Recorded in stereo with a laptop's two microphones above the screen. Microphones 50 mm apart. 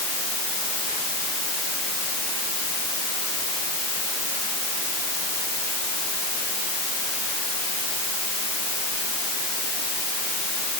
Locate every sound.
Only background noise.